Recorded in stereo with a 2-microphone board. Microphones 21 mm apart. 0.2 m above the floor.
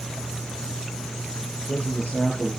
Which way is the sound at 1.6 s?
65° left (ahead or behind).